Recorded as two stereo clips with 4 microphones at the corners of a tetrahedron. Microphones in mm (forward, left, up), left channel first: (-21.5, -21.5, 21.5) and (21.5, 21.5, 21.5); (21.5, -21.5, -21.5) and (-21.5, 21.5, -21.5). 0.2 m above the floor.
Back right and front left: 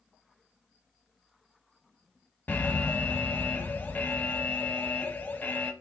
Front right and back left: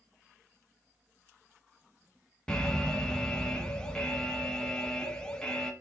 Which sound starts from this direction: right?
An alarm, at 2.5 s.